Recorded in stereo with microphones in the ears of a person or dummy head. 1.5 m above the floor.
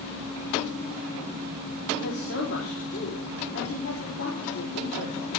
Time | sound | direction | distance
1.9 | a woman speaking | 80° left | 4.5 m